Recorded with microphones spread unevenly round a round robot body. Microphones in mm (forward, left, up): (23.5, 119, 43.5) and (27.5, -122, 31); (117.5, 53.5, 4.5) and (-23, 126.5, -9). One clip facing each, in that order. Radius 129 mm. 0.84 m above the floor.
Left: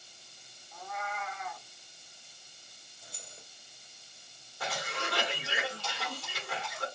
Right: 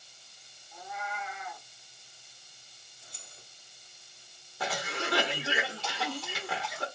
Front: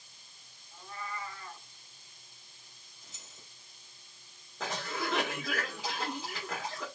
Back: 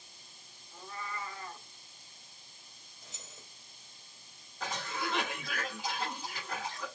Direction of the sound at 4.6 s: 75° right.